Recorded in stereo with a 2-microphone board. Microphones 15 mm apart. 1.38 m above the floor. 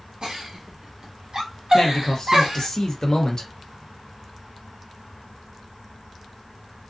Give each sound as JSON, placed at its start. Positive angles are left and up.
{"t": 0.2, "sound": "a giggle", "side_deg": -55, "distance_m": 1.0}
{"t": 1.7, "sound": "a man speaking", "side_deg": 50, "distance_m": 1.0}